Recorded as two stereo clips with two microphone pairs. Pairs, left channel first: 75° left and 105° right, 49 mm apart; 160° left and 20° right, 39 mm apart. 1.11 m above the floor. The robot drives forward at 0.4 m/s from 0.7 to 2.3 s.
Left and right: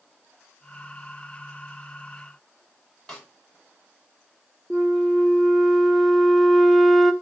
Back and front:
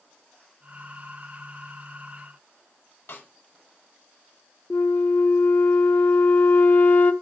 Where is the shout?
I don't hear a shout.